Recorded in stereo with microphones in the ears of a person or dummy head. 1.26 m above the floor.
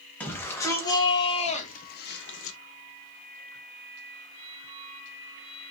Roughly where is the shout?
Centre.